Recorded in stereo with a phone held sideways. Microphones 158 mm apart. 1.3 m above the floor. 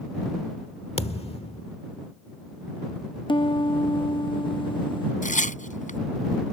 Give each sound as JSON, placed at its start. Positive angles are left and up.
{"t": 1.0, "sound": "a thud", "side_deg": 40}
{"t": 3.3, "sound": "a piano", "side_deg": 30}
{"t": 5.2, "sound": "tearing paper", "side_deg": 55}